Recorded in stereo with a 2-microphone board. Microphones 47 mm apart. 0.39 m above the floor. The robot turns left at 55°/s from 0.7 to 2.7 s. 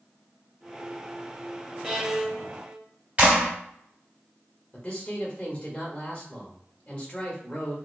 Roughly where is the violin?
Ahead.